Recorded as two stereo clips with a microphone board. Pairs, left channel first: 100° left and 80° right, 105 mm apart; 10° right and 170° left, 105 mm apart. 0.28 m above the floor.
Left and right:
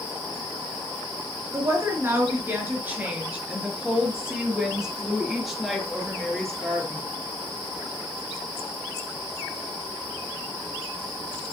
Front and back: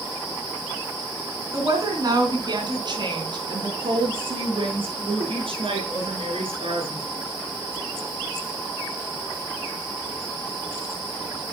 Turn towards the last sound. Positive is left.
turn(degrees=-175)